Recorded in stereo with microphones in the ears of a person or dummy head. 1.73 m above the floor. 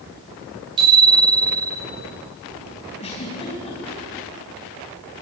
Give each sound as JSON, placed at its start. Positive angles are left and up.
{"t": 0.8, "sound": "a bicycle bell", "side_deg": -25, "distance_m": 8.0}
{"t": 3.0, "sound": "a giggle", "side_deg": 30, "distance_m": 4.0}